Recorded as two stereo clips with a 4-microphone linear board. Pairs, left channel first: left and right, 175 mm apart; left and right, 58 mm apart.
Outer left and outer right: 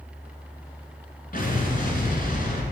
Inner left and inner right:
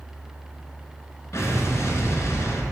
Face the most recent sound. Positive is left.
turn(degrees=50)  # may be behind; listen again after turning